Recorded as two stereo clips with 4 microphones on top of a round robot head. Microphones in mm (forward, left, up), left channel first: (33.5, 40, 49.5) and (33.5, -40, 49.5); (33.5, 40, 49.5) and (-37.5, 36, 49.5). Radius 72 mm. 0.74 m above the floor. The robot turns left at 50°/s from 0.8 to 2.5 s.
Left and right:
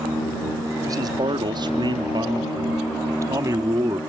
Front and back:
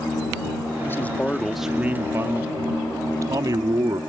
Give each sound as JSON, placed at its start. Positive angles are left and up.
{"t": 0.8, "sound": "a man speaking", "azimuth_deg": -55}